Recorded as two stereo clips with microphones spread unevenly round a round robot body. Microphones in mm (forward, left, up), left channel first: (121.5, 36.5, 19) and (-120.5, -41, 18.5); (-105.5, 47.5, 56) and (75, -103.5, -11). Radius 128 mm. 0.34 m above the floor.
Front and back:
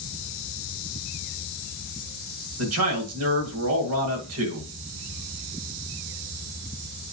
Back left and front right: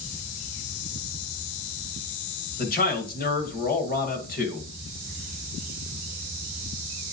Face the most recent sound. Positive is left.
turn(degrees=-160)